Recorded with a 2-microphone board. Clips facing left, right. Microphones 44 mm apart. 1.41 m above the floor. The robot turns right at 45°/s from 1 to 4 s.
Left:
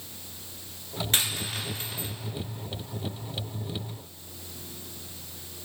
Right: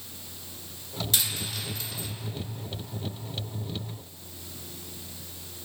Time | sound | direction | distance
1.1 | a dropped coin | 40° left (ahead or behind) | 1.0 m